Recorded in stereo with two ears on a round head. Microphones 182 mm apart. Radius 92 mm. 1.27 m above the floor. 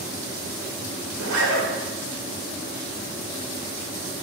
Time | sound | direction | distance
1.1 | a zipper | 75° right (ahead or behind) | 1.0 m